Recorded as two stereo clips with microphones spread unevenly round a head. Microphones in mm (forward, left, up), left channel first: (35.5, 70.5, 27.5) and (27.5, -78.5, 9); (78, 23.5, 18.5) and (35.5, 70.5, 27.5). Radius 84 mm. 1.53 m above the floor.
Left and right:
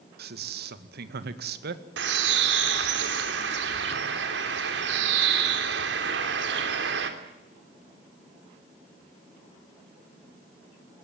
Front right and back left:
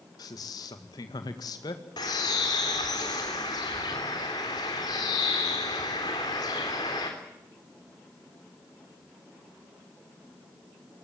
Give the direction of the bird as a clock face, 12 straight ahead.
3 o'clock.